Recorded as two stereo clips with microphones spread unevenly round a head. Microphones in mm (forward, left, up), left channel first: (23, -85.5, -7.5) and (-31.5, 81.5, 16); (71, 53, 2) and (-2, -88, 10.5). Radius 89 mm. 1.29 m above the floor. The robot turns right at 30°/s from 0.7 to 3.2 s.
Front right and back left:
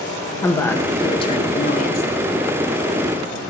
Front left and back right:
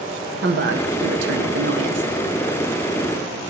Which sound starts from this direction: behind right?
A woman speaking, at 0.4 s.